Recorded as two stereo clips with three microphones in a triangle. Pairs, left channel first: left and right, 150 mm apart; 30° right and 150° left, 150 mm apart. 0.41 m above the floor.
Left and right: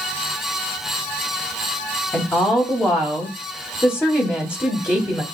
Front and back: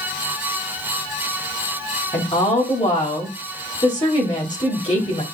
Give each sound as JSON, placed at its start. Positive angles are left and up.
{"t": 2.1, "sound": "a woman speaking", "azimuth_deg": 15, "distance_m": 2.0}